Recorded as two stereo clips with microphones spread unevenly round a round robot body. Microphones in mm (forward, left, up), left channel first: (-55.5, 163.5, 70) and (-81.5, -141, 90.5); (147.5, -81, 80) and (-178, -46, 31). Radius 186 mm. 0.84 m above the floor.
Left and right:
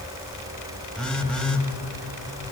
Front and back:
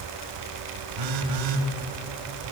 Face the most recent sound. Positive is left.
turn(degrees=175)